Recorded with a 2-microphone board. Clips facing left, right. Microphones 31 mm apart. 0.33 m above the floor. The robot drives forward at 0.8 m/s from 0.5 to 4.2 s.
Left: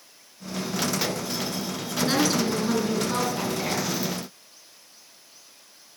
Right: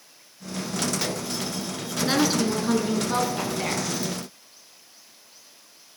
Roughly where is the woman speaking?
Centre.